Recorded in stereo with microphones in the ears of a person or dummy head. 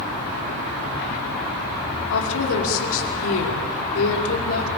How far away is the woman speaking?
About 5 m.